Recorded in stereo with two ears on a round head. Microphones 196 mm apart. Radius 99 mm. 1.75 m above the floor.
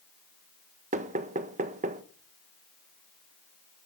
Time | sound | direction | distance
0.9 | knocking | 30° right (ahead or behind) | 1.1 m